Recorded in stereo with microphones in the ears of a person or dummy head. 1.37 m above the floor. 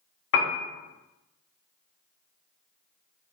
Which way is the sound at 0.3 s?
65° left (ahead or behind).